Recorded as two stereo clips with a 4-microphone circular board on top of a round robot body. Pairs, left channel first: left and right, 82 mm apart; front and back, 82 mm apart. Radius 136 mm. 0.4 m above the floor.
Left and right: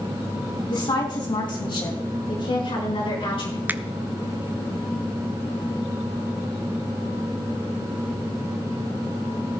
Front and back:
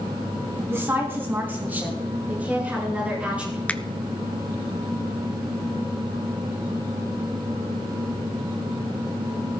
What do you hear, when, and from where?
0.7 s a woman speaking: 120° left, 5.5 m; by 3.6 s 105° left, 8 m
3.7 s a finger snap: 55° right, 0.9 m